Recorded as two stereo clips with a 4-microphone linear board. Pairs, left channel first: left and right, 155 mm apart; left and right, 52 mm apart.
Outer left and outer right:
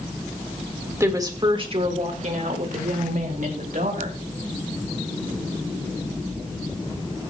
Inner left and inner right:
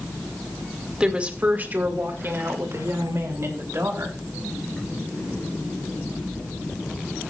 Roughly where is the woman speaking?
Centre.